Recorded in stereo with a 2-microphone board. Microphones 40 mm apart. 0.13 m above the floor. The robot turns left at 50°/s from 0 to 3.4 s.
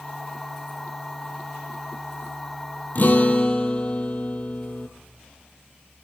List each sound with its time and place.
3.0 s a guitar: 50° left (ahead or behind), 1.2 m; by 4.9 s 30° left (ahead or behind), 1.2 m